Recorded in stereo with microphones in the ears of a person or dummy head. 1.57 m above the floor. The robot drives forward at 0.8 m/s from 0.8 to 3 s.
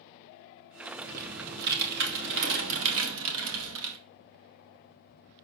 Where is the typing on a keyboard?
50° right (ahead or behind), 3 m; by 4.0 s 75° right (ahead or behind), 2.5 m.